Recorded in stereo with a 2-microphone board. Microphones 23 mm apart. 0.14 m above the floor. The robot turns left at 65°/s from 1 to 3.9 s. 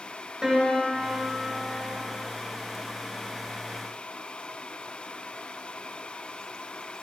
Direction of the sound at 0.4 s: 155° right.